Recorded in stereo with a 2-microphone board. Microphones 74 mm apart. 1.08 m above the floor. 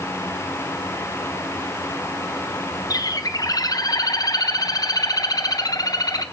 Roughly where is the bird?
Left.